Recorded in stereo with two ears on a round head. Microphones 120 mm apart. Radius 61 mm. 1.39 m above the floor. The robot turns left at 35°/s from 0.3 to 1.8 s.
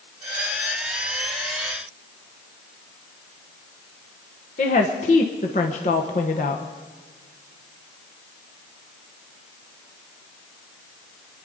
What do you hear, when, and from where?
4.6 s a woman speaking: 50° left (ahead or behind), 1.2 m